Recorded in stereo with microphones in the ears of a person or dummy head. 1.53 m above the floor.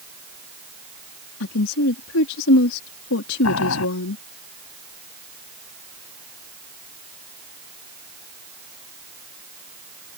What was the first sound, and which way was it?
A woman speaking, 80° left.